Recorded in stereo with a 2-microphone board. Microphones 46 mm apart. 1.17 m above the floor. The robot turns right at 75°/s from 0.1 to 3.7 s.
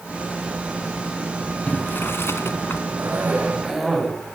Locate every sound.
1.7 s boiling: 35° left, 2 m; by 2.8 s 120° left, 2 m
3.0 s a cough: 60° right, 8.5 m; by 4.3 s 5° right, 8.5 m